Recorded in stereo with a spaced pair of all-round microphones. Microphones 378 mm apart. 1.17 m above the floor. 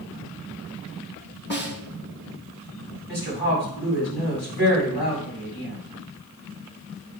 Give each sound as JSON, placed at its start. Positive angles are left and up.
{"t": 1.5, "sound": "a snare drum", "side_deg": 30, "distance_m": 1.3}
{"t": 3.1, "sound": "a woman speaking", "side_deg": 80, "distance_m": 5.0}